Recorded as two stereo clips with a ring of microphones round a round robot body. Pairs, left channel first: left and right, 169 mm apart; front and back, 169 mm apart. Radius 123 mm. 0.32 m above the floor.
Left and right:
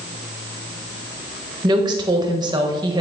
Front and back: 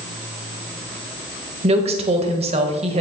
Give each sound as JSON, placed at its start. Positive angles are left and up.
{"t": 1.6, "sound": "a woman speaking", "azimuth_deg": -145, "distance_m": 1.3}